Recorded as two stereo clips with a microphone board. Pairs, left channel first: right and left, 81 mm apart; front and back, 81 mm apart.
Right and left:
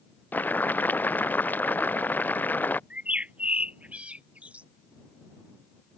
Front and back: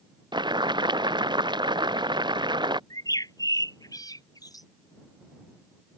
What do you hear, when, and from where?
0.3 s boiling: 160° right
2.9 s a bird: 20° left